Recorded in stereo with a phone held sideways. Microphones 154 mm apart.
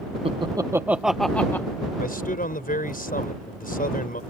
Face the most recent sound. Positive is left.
turn(degrees=65)  # may be behind; listen again after turning